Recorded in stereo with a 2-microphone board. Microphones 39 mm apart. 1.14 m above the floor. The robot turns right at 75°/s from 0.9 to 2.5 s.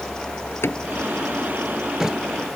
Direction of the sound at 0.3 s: 70° left (ahead or behind).